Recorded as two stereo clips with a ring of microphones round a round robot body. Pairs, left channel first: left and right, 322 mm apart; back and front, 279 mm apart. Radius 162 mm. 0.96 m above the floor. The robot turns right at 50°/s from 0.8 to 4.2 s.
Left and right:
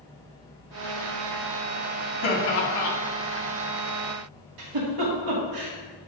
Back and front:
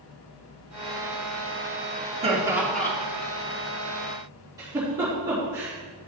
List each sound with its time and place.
2.2 s laughter: 65° left, 3 m; by 3.0 s 100° left, 3 m
4.6 s a giggle: 80° right, 2.5 m